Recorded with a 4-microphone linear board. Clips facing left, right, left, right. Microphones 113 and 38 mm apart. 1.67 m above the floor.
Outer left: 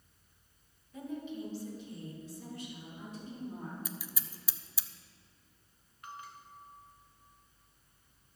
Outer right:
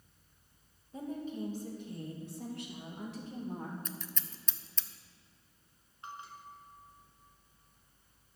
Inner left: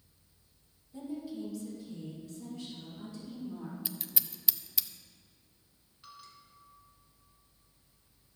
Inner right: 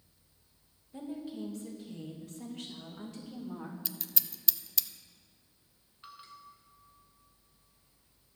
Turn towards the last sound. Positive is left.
turn(degrees=-25)  # may be behind; listen again after turning